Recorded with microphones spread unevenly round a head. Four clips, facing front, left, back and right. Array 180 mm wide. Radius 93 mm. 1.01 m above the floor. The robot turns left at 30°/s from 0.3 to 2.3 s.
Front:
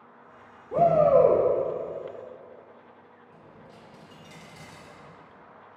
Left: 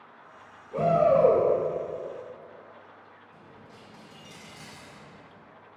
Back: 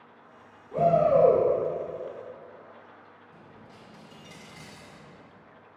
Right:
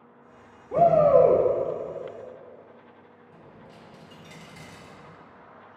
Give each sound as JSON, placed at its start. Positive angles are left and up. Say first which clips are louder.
{"t": 0.7, "sound": "a shout", "louder": "right 4 dB, front 2 dB", "azimuth_deg": -40, "distance_m": 2.5}
{"t": 3.3, "sound": "a dropped coin", "louder": "right 4 dB, front 2 dB", "azimuth_deg": -135, "distance_m": 1.4}